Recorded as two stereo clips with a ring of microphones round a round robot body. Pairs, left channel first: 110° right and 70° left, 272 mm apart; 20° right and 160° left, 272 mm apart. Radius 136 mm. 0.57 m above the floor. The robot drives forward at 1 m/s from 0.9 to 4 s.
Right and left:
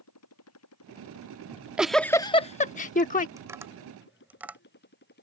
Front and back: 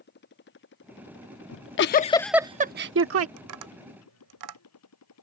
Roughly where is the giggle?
Ahead.